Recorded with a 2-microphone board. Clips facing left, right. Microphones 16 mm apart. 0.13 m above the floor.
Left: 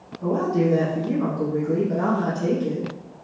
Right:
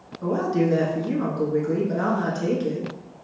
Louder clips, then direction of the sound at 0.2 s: Left 1 dB; 30° right (ahead or behind).